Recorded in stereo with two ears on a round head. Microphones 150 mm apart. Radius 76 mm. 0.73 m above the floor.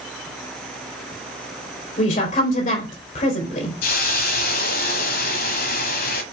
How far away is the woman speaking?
About 3.5 m.